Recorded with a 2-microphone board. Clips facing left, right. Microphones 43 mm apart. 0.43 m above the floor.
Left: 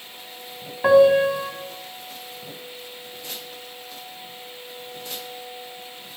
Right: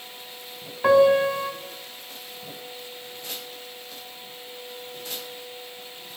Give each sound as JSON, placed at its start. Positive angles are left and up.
{"t": 0.8, "sound": "a piano", "side_deg": 15, "distance_m": 2.0}